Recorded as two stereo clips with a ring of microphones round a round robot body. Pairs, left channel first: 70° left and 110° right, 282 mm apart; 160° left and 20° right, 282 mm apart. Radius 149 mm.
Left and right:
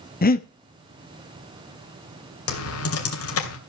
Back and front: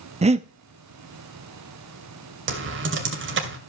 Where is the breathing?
30° left, 1.0 m.